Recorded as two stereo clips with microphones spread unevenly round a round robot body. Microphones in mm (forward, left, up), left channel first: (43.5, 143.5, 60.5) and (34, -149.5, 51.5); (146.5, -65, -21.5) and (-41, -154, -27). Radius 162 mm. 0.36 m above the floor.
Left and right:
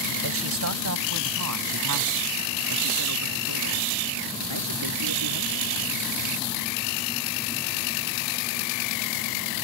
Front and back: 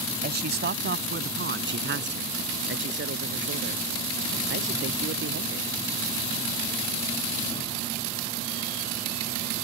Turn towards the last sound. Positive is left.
turn(degrees=-130)